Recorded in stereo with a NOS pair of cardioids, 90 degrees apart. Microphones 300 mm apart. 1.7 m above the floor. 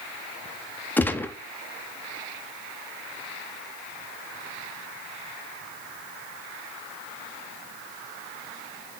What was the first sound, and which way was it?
A gunshot, 5° left.